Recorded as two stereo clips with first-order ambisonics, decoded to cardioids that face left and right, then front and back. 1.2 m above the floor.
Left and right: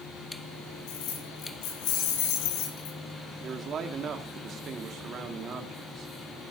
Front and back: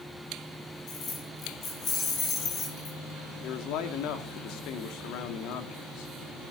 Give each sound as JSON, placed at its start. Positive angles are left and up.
{"t": 0.9, "sound": "keys jangling", "azimuth_deg": 55, "distance_m": 8.0}
{"t": 3.4, "sound": "a man speaking", "azimuth_deg": -35, "distance_m": 2.5}